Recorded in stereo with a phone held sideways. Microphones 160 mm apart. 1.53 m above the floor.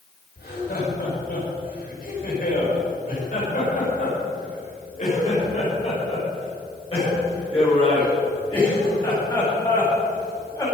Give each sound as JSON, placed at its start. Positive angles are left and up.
{"t": 0.4, "sound": "laughter", "side_deg": 75, "distance_m": 6.0}